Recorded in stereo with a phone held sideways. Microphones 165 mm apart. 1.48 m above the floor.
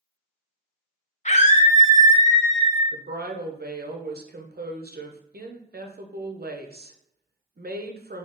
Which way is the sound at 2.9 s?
70° right (ahead or behind).